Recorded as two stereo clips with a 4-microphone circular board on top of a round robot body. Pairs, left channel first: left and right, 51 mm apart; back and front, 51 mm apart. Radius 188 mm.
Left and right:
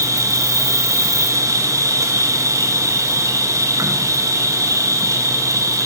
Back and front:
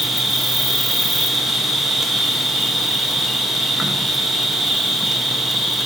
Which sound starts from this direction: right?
An insect, at 0.0 s.